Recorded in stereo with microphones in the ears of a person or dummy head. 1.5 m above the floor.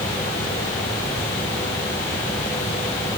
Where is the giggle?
I don't hear a giggle.